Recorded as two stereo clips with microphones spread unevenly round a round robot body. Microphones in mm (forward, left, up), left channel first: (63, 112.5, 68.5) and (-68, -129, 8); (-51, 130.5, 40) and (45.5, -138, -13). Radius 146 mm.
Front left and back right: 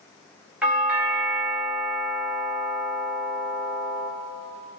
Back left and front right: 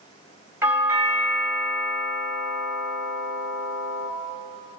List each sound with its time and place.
0.6 s a doorbell: 85° right, 1.3 m